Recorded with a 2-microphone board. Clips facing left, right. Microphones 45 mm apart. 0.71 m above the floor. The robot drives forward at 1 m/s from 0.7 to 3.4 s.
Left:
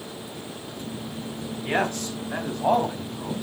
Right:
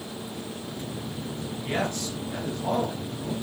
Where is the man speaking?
60° left (ahead or behind), 4.5 m; by 3.4 s 80° left, 4 m.